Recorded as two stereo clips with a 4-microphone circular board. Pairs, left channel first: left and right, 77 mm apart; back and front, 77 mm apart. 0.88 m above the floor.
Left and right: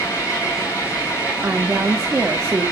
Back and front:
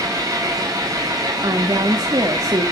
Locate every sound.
0.0 s an engine running: 40° left, 5.5 m
1.4 s a woman speaking: 25° right, 1.4 m